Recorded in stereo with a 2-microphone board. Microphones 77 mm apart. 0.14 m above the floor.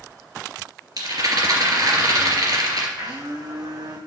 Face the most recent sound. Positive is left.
turn(degrees=-60)  # may be behind; listen again after turning